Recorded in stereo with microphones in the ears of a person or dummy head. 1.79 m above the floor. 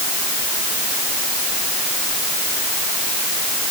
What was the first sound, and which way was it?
Only background noise.